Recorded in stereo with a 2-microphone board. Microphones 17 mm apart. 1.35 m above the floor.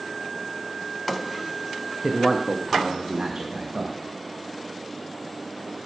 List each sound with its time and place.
2.0 s a man speaking: 5° left (ahead or behind), 0.7 m; by 4.0 s 45° right (ahead or behind), 1.6 m